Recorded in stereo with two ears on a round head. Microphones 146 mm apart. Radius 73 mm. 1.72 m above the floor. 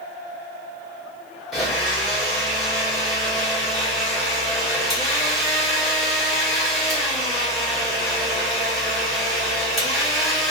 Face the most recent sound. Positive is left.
turn(degrees=0)  # may be behind; listen again after turning